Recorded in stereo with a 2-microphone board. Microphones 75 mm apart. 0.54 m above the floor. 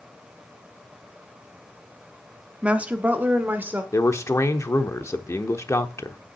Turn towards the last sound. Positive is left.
turn(degrees=40)  # may be behind; listen again after turning